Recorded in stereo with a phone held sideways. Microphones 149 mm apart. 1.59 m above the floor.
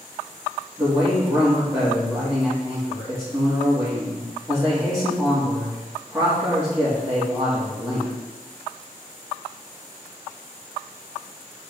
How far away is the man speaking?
About 3 m.